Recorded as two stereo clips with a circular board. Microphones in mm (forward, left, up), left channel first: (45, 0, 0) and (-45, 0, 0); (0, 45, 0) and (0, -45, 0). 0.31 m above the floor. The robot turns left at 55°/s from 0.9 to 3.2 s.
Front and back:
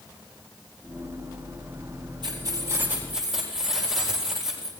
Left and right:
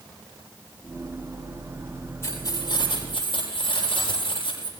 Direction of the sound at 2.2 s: 150° left.